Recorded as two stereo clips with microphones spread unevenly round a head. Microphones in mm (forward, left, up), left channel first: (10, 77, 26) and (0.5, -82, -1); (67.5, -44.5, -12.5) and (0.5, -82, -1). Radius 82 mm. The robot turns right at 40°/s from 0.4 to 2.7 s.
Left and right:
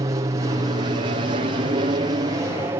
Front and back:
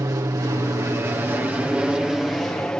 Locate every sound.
0.0 s an aircraft: 135° right; by 2.8 s 40° right